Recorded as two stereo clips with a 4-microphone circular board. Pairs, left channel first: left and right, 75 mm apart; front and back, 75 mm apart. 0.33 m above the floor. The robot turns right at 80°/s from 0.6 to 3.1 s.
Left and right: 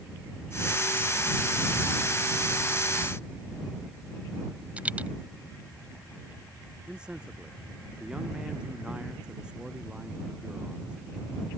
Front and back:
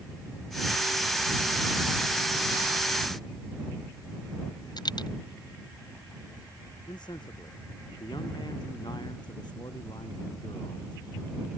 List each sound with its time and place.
4.8 s a dropped coin: 20° right
6.9 s a man speaking: 15° right